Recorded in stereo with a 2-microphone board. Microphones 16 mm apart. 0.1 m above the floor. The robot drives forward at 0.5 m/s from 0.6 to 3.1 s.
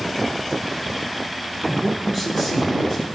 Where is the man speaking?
20° right (ahead or behind), 1.1 m; by 3.0 s 15° right (ahead or behind), 1.2 m.